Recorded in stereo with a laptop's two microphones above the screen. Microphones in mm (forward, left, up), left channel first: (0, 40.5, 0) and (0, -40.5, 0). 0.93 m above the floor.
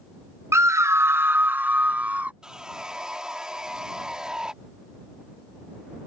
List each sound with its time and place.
0.5 s a scream: 35° right (ahead or behind); by 2.3 s 20° right (ahead or behind)
2.4 s sawing: 10° right (ahead or behind)